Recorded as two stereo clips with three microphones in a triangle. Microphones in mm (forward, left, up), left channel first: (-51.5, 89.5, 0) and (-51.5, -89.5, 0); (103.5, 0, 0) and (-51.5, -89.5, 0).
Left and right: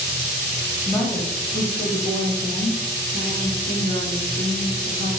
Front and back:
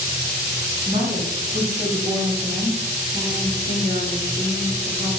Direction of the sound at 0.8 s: 170° left.